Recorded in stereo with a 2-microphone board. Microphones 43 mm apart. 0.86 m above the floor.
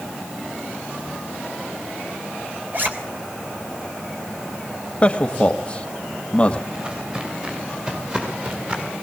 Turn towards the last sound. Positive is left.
turn(degrees=-35)  # may be behind; listen again after turning